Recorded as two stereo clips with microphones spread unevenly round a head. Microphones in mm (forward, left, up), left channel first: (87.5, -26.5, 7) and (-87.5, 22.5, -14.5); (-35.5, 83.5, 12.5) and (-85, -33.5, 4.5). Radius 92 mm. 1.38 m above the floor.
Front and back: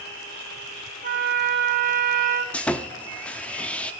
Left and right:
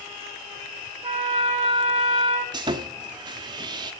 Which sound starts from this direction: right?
Sawing, at 2.5 s.